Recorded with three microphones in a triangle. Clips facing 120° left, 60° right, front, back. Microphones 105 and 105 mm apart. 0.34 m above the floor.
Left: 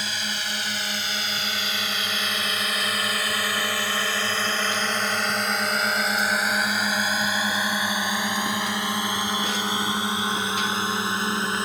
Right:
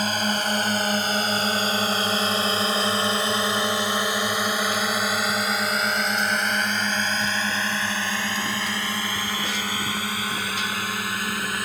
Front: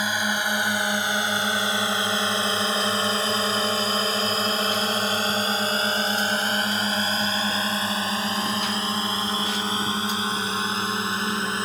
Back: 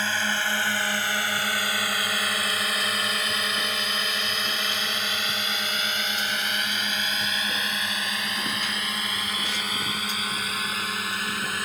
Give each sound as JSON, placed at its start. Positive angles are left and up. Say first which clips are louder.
{"t": 0.0, "sound": "a drone", "louder": "right 8 dB, front 2 dB", "azimuth_deg": -70}